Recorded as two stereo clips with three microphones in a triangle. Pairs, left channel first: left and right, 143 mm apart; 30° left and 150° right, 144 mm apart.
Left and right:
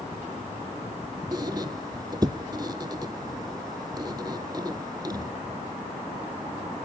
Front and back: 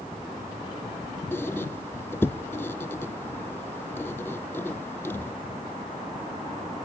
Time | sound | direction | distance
1.3 | a squeak | 40° right | 0.8 m